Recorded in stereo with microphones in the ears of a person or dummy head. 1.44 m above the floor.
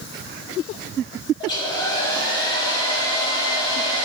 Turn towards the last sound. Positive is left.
turn(degrees=25)  # may be behind; listen again after turning